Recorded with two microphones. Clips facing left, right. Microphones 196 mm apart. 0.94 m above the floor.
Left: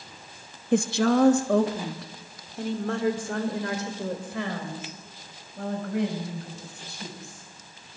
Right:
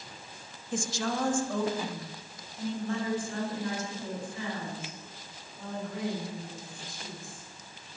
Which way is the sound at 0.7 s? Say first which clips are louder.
Left 11 dB; 65° left (ahead or behind).